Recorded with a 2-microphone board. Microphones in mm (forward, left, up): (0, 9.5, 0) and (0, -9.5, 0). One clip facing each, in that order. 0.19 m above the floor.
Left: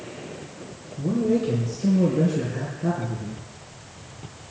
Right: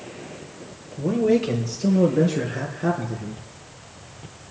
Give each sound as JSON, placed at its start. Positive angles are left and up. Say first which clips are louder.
{"t": 1.0, "sound": "a man speaking", "louder": "right 3 dB", "side_deg": -65, "distance_m": 4.0}